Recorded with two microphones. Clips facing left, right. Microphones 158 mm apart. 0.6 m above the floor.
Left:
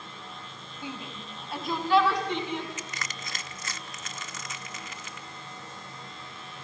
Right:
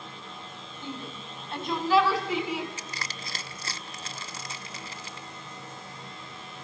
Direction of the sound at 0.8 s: 15° left (ahead or behind).